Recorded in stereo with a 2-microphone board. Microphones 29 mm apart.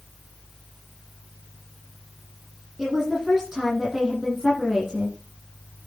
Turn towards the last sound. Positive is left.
turn(degrees=-15)  # may be behind; listen again after turning